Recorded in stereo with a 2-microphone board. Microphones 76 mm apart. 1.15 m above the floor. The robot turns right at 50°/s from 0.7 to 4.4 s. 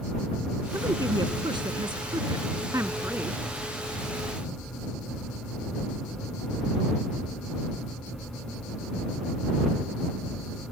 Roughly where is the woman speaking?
Behind right.